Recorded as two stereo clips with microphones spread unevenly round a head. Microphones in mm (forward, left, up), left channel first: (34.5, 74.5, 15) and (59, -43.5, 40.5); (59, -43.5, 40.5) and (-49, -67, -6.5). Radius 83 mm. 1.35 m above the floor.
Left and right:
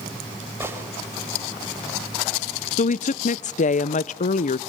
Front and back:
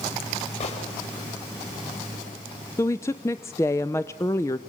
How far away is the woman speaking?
About 0.6 m.